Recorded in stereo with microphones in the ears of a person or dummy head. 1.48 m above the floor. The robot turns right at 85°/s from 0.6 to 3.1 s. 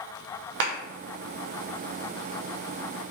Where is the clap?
80° right, 0.8 m; by 0.8 s 70° right (ahead or behind), 0.8 m.